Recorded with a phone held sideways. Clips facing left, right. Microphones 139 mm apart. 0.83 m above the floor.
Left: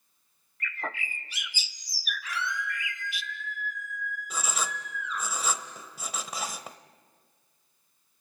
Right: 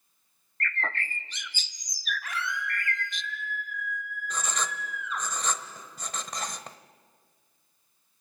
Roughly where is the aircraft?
No aircraft in this recording.